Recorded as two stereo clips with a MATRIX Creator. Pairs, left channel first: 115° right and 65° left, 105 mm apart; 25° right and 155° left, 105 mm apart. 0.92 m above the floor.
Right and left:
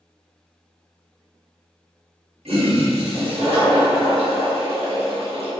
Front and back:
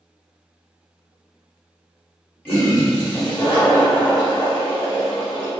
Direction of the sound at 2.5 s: 50° left.